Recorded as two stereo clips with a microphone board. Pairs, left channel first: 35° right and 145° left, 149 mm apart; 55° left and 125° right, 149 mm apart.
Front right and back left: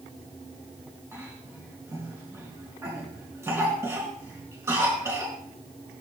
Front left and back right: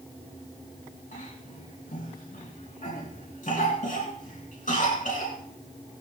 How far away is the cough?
About 3 m.